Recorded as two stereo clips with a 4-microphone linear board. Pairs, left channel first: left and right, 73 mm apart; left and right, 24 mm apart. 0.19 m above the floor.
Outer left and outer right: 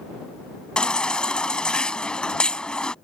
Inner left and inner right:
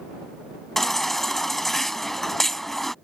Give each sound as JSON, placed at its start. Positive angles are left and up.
{"t": 0.8, "sound": "a baby crying", "side_deg": 10}